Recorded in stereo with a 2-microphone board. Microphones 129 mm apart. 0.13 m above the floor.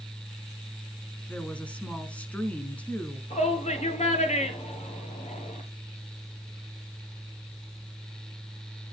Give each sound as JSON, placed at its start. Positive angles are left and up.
{"t": 1.3, "sound": "a woman speaking", "side_deg": 10, "distance_m": 1.1}
{"t": 3.3, "sound": "a shout", "side_deg": 55, "distance_m": 2.0}